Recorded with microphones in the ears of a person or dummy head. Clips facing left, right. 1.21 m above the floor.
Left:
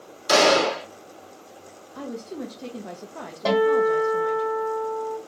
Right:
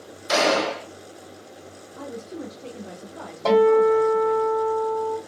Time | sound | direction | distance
0.3 | a gunshot | 75° left (ahead or behind) | 1.4 m
1.9 | a woman speaking | 65° left (ahead or behind) | 0.7 m
3.5 | a guitar | 10° left (ahead or behind) | 2.5 m